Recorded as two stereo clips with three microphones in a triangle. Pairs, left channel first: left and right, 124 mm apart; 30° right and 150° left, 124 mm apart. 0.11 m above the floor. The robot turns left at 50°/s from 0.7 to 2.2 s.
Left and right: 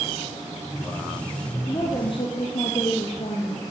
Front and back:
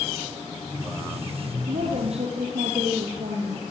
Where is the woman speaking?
155° left, 3.5 m; by 3.6 s 130° left, 3.5 m.